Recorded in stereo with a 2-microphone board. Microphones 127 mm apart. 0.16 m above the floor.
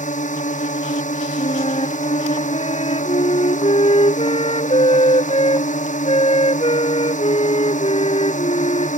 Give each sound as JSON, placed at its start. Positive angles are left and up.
{"t": 0.0, "sound": "a drone", "side_deg": 80}
{"t": 1.4, "sound": "a flute", "side_deg": 55}